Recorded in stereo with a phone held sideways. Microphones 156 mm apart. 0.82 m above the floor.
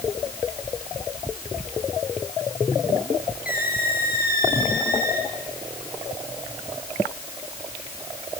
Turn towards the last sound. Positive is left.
turn(degrees=75)  # may be behind; listen again after turning